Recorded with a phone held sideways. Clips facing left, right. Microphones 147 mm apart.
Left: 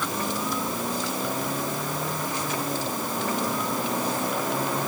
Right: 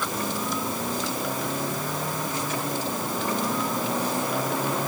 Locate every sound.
Only background noise.